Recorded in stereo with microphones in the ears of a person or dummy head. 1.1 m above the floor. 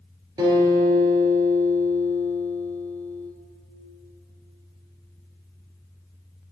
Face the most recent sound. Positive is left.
turn(degrees=-20)  # may be behind; listen again after turning